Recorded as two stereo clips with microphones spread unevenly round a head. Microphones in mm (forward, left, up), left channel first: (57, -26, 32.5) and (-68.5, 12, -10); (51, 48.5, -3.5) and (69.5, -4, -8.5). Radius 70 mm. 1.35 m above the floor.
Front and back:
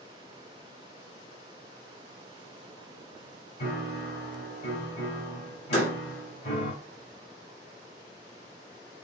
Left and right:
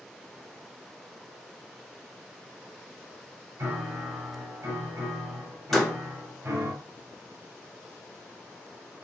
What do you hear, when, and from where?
3.6 s a piano: 50° right, 2.5 m
5.7 s a door slam: 30° left, 1.7 m